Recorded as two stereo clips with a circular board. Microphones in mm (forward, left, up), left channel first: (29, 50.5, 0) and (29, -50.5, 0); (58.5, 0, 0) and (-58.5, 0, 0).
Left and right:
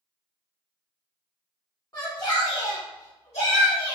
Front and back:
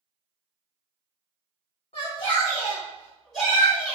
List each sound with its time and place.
1.9 s a shout: 40° left, 1.1 m; by 4.0 s 100° left, 1.4 m